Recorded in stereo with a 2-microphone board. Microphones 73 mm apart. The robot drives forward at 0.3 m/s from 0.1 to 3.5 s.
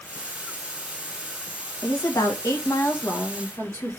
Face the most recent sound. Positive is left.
turn(degrees=45)  # may be behind; listen again after turning